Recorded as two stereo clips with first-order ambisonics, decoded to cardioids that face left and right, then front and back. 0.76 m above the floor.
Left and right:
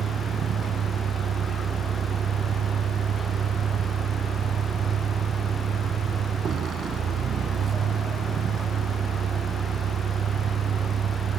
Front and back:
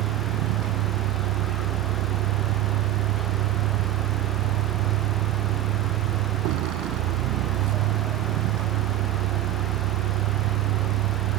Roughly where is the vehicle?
Behind right.